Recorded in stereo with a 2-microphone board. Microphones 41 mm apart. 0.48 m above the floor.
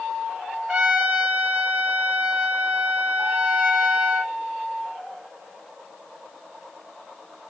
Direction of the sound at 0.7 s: 35° right (ahead or behind).